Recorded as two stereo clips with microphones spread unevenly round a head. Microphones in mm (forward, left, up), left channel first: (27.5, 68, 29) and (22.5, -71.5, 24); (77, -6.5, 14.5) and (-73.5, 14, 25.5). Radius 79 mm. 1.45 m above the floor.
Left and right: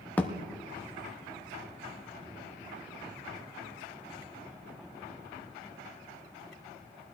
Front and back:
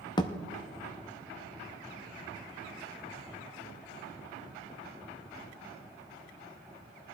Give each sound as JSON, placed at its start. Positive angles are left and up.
{"t": 0.2, "sound": "a thud", "azimuth_deg": 30, "distance_m": 0.8}